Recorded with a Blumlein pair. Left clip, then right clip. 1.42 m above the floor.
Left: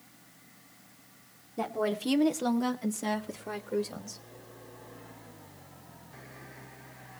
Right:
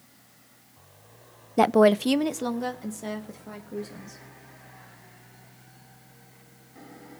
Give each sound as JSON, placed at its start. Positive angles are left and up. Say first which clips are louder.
{"t": 1.6, "sound": "a woman speaking", "louder": "right 13 dB", "azimuth_deg": -60, "distance_m": 0.5}